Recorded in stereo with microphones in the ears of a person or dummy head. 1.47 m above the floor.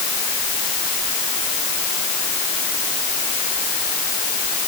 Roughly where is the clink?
No clink in this recording.